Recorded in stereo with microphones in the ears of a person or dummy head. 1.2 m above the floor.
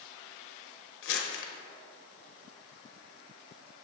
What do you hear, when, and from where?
1.0 s crumpling: 60° left (ahead or behind), 1.2 m